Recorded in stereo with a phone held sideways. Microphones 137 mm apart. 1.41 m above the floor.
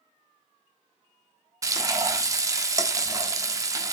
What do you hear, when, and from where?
1.6 s frying: 25° right (ahead or behind), 1.0 m